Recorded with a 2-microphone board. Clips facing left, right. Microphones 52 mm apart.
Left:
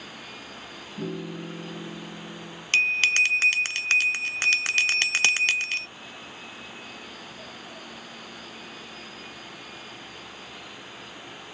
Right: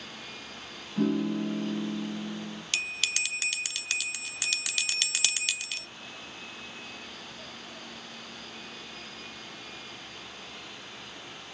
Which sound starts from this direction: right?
A piano, at 1.0 s.